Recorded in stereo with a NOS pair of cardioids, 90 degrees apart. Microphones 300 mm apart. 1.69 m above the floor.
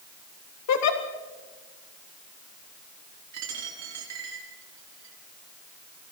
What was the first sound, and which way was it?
A giggle, 65° left.